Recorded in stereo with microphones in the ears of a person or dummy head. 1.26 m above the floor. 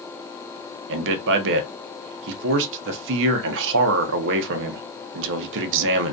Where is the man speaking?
70° right (ahead or behind), 0.6 m.